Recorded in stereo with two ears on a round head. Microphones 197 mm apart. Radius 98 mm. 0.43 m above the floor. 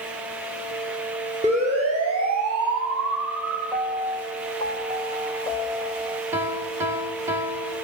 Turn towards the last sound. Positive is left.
turn(degrees=-10)  # may be behind; listen again after turning